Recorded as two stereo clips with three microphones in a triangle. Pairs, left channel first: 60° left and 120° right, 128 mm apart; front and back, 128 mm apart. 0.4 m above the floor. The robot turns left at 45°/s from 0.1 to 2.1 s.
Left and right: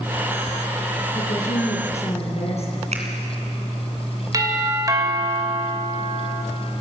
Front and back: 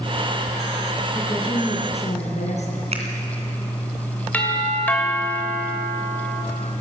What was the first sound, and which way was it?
A woman speaking, 70° left.